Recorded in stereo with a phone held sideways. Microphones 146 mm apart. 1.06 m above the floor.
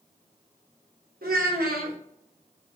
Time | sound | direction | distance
1.2 | a child speaking | 85° right | 0.8 m